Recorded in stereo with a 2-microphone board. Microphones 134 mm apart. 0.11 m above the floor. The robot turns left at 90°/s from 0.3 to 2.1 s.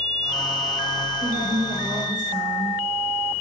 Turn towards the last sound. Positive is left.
turn(degrees=-150)